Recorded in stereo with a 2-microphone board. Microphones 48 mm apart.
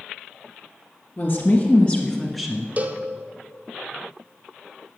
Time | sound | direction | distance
1.2 | a woman speaking | 45° left (ahead or behind) | 2 m
2.8 | a cowbell | 35° right (ahead or behind) | 0.6 m